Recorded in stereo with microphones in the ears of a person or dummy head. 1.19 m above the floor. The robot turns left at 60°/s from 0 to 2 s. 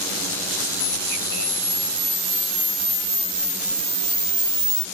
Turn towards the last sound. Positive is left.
turn(degrees=-15)